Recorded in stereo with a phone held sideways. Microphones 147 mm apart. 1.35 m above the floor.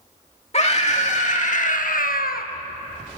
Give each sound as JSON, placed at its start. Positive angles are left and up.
{"t": 0.5, "sound": "a scream", "side_deg": 50, "distance_m": 3.0}